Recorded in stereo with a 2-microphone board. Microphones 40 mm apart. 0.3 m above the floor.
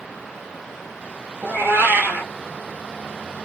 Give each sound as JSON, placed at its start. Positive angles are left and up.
{"t": 1.4, "sound": "a cat meowing", "side_deg": -60, "distance_m": 1.3}